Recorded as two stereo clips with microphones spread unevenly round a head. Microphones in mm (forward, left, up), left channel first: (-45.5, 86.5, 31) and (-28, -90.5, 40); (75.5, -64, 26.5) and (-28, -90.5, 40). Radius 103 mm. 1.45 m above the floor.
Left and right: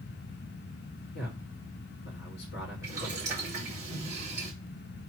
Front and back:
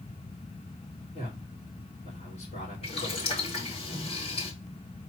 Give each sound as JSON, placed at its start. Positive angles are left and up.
{"t": 1.1, "sound": "a man speaking", "azimuth_deg": 60, "distance_m": 3.5}
{"t": 2.8, "sound": "boiling", "azimuth_deg": -10, "distance_m": 4.0}